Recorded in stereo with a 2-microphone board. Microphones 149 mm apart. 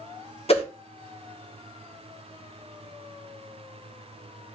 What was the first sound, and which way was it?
A whoosh, 45° left (ahead or behind).